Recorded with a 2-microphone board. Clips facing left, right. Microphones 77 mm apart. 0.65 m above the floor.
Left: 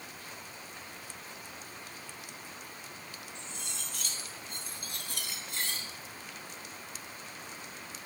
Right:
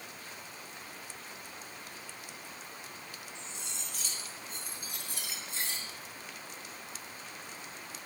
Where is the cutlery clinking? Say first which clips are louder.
Left 1 dB; 65° left (ahead or behind), 3 m.